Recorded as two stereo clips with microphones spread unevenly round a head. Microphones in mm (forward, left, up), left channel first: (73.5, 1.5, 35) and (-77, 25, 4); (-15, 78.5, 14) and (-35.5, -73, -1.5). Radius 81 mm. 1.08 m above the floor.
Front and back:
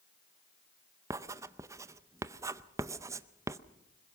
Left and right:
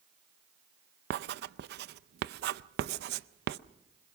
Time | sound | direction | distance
1.1 | writing | 115° right | 0.5 m